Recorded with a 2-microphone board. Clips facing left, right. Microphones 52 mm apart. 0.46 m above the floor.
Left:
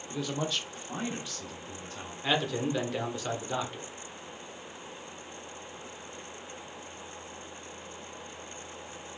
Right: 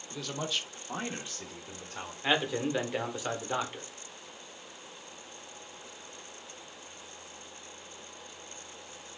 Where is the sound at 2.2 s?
15° right (ahead or behind), 0.9 m.